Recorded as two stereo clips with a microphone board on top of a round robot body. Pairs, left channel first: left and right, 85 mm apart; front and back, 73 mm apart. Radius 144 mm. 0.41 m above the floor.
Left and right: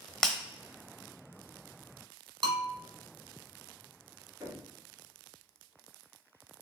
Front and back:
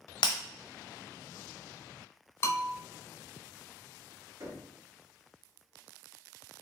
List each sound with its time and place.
0.2 s breaking glass: 5° left, 0.6 m
2.4 s a bell: 60° right, 0.8 m
4.4 s knocking: 145° right, 1.9 m